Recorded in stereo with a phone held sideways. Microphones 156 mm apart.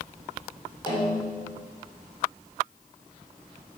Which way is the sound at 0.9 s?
30° left (ahead or behind).